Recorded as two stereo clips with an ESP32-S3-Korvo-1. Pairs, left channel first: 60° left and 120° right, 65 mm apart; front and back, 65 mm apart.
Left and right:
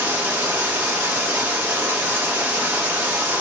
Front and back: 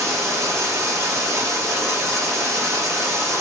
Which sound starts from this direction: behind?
Running water, at 0.0 s.